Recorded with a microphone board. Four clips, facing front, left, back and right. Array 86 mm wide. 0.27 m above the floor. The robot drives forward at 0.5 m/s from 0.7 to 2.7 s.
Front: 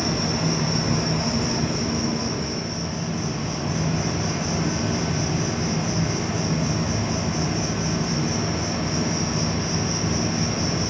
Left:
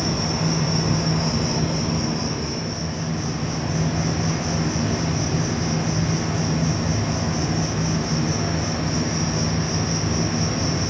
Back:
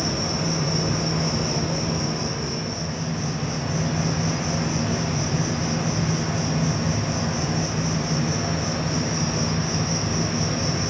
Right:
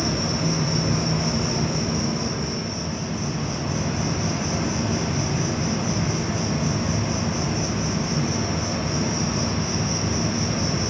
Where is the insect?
60° left, 1.2 m; by 10.9 s 125° left, 1.2 m.